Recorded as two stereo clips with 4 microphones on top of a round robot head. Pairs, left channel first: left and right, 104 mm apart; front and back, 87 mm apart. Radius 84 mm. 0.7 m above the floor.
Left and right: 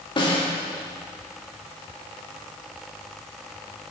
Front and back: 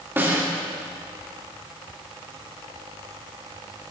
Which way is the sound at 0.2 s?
120° left.